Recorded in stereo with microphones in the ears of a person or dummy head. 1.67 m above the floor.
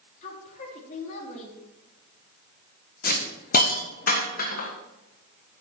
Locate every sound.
0.2 s a woman speaking: 45° left (ahead or behind), 3.5 m
3.0 s a hiss: 50° left (ahead or behind), 1.5 m